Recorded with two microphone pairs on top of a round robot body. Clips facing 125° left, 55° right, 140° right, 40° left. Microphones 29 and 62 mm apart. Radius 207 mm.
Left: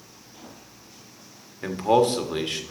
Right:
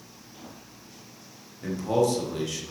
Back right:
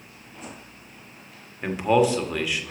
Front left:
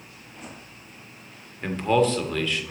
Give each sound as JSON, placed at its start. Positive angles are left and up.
{"t": 1.6, "sound": "a man speaking", "azimuth_deg": 150, "distance_m": 1.5}